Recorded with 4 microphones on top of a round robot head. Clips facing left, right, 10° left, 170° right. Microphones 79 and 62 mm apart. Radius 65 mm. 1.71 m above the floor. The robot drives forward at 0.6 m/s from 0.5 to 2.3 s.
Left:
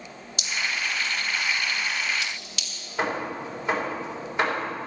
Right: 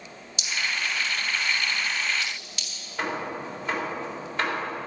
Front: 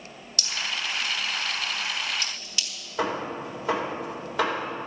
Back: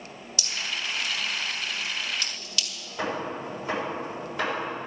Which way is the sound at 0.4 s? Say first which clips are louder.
Even, front 2 dB; 50° left.